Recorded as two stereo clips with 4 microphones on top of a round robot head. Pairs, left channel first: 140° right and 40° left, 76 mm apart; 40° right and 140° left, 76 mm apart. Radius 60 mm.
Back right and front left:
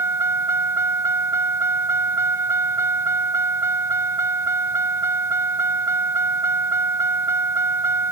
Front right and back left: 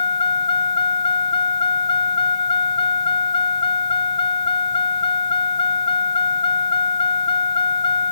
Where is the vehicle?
20° right.